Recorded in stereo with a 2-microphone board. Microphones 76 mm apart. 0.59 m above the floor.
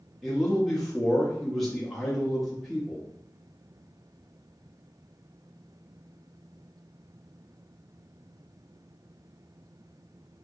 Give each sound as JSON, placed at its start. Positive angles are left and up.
{"t": 0.2, "sound": "a man speaking", "side_deg": 5, "distance_m": 0.6}